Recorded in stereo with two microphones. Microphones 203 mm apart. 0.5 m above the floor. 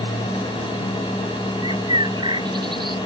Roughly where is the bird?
Right.